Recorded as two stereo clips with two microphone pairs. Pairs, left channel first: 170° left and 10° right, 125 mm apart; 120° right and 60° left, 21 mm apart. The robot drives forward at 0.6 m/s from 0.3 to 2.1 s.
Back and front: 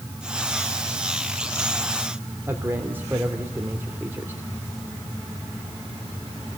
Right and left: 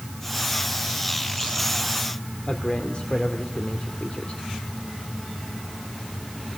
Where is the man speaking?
80° right, 2.5 m.